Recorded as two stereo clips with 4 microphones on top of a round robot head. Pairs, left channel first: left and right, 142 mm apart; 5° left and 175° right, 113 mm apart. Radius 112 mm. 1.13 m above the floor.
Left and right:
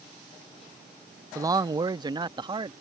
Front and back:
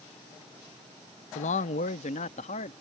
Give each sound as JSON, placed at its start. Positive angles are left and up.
{"t": 1.4, "sound": "a man speaking", "azimuth_deg": -20}